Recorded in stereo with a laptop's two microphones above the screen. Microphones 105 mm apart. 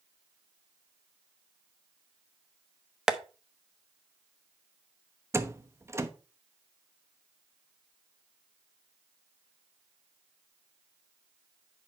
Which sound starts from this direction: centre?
Tapping, at 3.1 s.